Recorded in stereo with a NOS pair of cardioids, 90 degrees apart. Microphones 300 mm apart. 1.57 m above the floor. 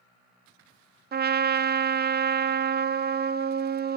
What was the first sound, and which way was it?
A trumpet, 35° right.